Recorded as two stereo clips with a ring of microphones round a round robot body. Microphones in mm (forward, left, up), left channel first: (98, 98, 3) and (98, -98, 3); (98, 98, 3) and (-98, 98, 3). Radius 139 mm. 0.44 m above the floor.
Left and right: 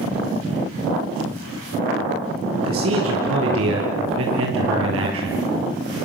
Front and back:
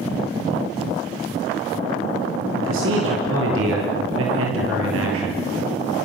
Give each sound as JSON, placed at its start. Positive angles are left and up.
{"t": 2.5, "sound": "a man speaking", "azimuth_deg": -130, "distance_m": 6.5}